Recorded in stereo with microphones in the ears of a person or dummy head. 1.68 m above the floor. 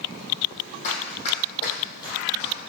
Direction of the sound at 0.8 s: 40° left (ahead or behind).